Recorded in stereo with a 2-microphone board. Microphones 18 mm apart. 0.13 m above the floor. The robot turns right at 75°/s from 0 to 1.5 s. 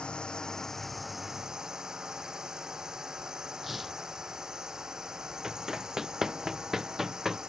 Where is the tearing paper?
10° right (ahead or behind).